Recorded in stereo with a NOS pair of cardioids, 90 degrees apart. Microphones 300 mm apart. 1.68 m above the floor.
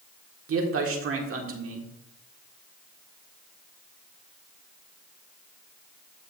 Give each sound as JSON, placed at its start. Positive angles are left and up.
{"t": 0.5, "sound": "a man speaking", "azimuth_deg": -50, "distance_m": 1.7}